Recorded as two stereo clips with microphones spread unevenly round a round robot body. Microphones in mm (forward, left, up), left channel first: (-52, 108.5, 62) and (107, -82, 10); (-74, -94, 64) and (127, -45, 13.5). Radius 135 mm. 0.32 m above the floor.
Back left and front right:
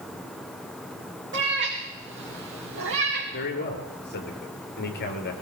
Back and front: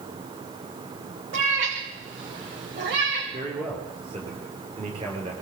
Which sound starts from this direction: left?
A man speaking, at 3.3 s.